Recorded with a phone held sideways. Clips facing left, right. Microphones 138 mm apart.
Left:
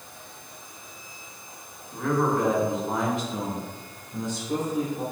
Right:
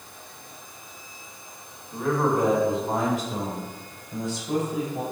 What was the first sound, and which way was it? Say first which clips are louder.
A man speaking: right 1 dB; 10° right (ahead or behind).